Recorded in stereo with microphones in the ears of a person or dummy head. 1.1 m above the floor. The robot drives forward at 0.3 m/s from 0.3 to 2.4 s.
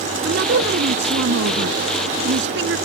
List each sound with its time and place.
0.2 s a woman speaking: 65° right (ahead or behind)